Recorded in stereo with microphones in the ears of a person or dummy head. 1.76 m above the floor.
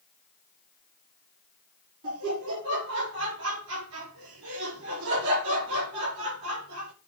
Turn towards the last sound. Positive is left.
turn(degrees=-80)